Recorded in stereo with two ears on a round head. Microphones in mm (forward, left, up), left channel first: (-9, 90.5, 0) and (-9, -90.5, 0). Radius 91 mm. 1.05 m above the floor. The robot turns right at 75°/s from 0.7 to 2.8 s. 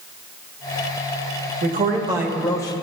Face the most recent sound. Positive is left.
turn(degrees=30)